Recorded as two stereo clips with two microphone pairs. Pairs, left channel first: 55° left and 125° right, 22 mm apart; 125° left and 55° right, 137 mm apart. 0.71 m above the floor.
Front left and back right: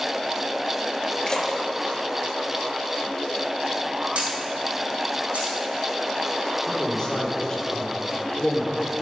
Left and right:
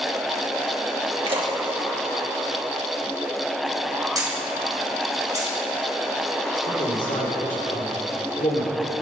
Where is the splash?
5° right, 1.4 m.